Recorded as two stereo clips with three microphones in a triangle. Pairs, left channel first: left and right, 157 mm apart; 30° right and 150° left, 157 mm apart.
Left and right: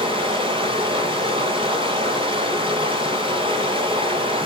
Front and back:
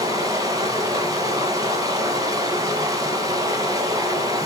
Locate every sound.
0.0 s running water: 145° right, 2.5 m